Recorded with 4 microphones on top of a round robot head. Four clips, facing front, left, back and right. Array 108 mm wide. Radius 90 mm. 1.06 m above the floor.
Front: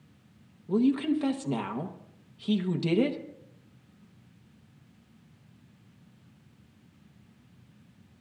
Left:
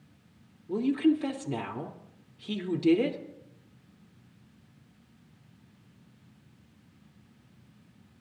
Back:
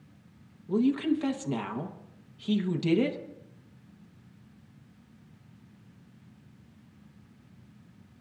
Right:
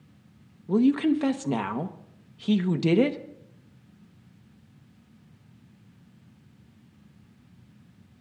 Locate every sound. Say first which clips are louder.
0.7 s a woman speaking: right 4 dB, front 1 dB; 80° right, 1.2 m